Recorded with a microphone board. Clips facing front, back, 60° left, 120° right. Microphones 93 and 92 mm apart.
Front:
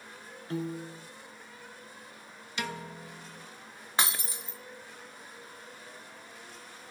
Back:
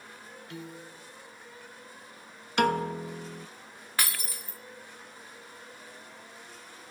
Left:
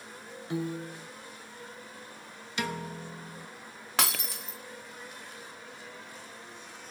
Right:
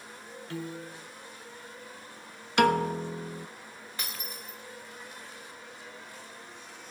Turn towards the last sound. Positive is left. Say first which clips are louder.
# front 2 dB, left 11 dB
turn(degrees=65)